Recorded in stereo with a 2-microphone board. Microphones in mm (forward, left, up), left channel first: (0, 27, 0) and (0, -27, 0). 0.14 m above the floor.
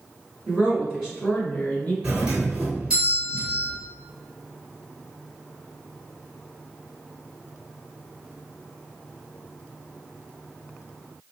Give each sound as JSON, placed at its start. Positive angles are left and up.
{"t": 0.5, "sound": "a woman speaking", "side_deg": -25, "distance_m": 1.7}
{"t": 2.0, "sound": "a doorbell", "side_deg": -20, "distance_m": 1.8}